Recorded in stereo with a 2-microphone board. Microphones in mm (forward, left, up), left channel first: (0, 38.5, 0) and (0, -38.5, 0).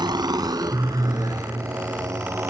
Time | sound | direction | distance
0.0 | a motorcycle | 70° right (ahead or behind) | ?